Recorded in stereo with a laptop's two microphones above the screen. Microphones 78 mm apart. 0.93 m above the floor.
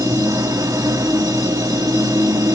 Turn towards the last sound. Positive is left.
turn(degrees=-45)  # may be behind; listen again after turning